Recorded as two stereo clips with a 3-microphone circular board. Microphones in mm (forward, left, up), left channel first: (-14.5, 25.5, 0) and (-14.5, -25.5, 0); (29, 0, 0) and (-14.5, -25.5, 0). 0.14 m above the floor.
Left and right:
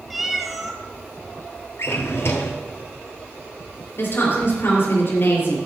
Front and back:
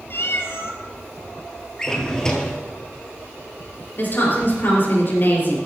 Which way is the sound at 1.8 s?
100° left.